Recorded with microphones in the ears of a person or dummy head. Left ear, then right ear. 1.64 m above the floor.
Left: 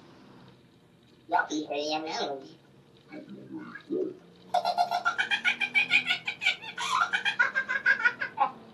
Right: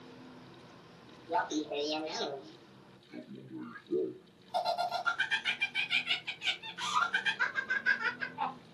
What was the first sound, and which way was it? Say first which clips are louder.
Laughter: left 5 dB; 35° left (ahead or behind).